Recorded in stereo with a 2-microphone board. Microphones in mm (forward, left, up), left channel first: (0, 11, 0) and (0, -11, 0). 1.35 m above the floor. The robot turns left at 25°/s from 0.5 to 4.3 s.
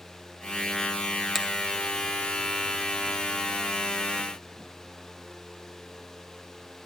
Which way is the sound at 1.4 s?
5° right (ahead or behind).